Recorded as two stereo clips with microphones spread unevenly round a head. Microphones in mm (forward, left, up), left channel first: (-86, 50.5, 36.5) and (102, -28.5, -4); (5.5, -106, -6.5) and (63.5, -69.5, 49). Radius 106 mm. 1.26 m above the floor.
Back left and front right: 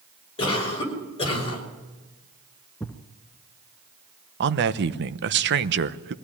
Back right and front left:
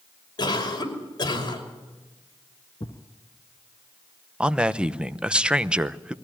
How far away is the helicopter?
I don't hear a helicopter.